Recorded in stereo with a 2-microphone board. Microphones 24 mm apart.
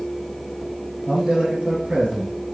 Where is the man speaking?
40° right (ahead or behind), 2 m.